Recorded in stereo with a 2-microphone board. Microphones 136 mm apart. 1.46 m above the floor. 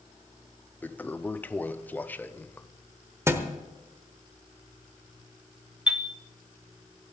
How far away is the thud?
About 1.1 m.